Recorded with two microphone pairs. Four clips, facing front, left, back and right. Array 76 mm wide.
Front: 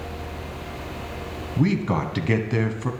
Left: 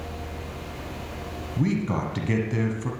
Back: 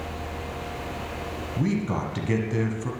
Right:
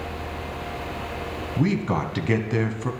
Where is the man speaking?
40° right, 1.4 m.